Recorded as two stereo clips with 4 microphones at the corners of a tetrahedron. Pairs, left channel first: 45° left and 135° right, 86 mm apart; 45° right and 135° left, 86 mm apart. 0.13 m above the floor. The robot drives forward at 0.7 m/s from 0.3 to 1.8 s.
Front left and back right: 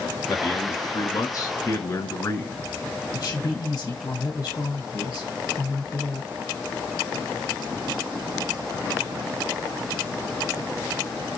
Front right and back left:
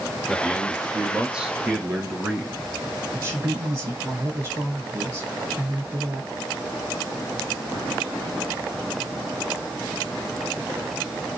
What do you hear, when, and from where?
0.3 s a man speaking: 40° left, 2 m; by 2.6 s 70° left, 1.7 m
3.1 s a woman speaking: 90° left, 3 m